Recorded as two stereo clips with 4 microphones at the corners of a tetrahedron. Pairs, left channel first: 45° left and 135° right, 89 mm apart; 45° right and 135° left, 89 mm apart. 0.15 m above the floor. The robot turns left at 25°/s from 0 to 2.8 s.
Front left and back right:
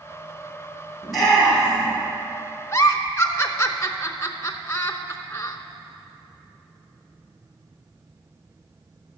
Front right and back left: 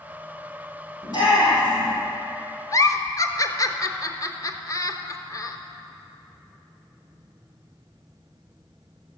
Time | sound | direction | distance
1.0 | a shout | 40° right | 3.5 m
2.7 | a giggle | 5° right | 0.7 m